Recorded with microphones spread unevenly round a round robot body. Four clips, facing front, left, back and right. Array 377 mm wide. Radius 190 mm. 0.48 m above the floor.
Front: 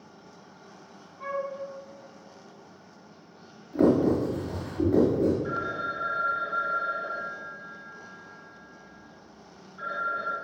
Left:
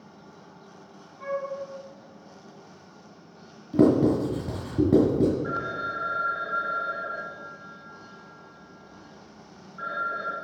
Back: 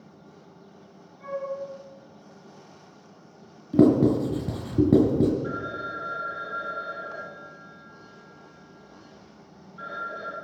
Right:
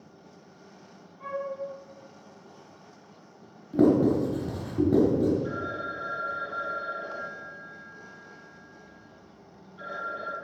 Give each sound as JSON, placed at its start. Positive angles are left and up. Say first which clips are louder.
{"t": 1.2, "sound": "a flute", "louder": "left 3 dB, even", "azimuth_deg": -25, "distance_m": 4.5}
{"t": 3.7, "sound": "writing", "louder": "left 1 dB, back 3 dB", "azimuth_deg": 175, "distance_m": 3.0}
{"t": 5.4, "sound": "a phone ringing", "louder": "left 2 dB, front 1 dB", "azimuth_deg": -115, "distance_m": 3.0}